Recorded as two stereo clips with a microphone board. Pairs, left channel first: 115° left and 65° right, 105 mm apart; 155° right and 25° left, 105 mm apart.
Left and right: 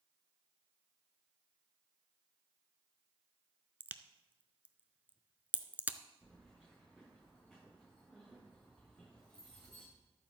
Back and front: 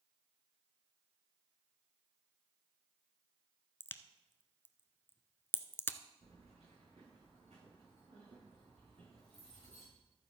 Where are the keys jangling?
30° left, 6 m.